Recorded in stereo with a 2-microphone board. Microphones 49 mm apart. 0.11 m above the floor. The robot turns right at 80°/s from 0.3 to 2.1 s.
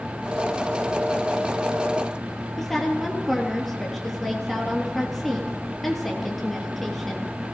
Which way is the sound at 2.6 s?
5° left (ahead or behind).